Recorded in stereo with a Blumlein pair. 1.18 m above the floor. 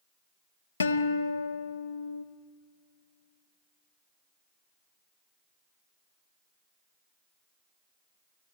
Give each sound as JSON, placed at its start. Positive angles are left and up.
{"t": 0.8, "sound": "a guitar", "azimuth_deg": 70, "distance_m": 0.9}